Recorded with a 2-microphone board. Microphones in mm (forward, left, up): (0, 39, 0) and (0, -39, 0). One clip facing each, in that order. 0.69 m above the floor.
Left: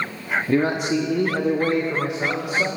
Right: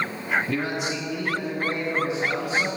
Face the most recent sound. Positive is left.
turn(degrees=75)  # may be behind; listen again after turning